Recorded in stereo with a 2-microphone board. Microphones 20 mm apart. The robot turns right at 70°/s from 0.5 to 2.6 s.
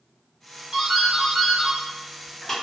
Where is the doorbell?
60° right, 1.3 m; by 2.5 s 65° left, 1.3 m.